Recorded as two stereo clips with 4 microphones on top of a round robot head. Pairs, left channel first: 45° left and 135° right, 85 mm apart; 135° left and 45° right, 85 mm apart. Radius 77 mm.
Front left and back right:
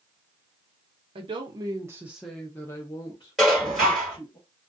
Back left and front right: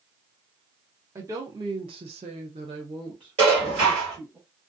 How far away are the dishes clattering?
About 1.7 m.